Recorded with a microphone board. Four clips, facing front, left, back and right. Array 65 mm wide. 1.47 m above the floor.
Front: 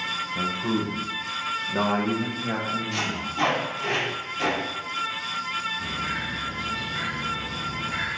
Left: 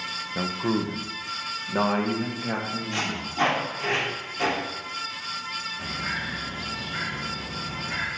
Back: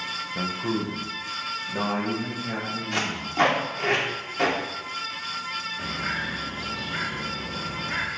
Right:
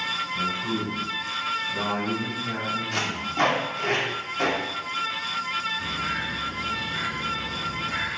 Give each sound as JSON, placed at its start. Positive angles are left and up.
{"t": 0.3, "sound": "a man speaking", "azimuth_deg": 100, "distance_m": 1.2}
{"t": 2.9, "sound": "tape being pulled", "azimuth_deg": -155, "distance_m": 2.5}
{"t": 5.8, "sound": "a bird", "azimuth_deg": 175, "distance_m": 2.5}